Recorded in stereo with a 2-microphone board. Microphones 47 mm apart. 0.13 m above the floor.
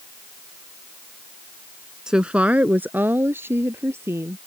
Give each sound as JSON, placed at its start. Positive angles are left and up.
{"t": 2.1, "sound": "a woman speaking", "side_deg": -15}